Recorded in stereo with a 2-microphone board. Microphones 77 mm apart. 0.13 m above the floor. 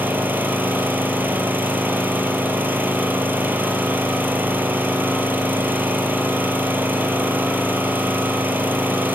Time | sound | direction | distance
0.0 | an engine running | 25° right (ahead or behind) | 1.7 m